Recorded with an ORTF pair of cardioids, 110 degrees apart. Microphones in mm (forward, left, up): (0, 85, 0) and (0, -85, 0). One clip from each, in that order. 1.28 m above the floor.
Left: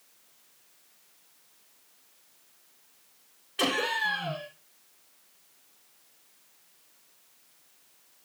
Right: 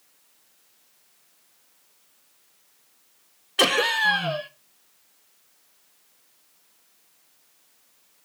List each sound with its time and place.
3.6 s laughter: 45° right, 1.2 m